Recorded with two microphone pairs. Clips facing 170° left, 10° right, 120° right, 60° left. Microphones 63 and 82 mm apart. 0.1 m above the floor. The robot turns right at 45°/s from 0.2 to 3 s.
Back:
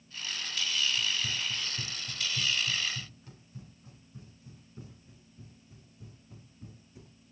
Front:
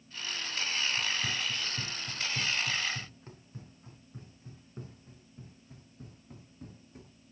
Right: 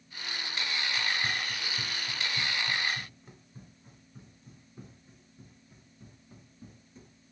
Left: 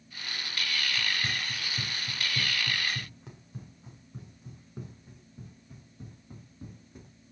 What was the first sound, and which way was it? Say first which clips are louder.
Running footsteps: front 1 dB, right 1 dB; 35° right.